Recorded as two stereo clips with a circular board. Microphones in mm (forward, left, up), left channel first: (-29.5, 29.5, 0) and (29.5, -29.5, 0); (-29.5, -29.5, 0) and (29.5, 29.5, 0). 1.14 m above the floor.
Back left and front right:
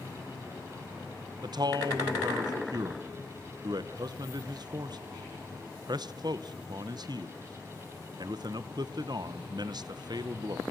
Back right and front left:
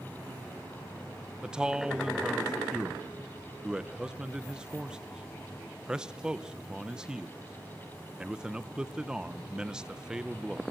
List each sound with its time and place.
1.4 s a man speaking: 35° right, 0.9 m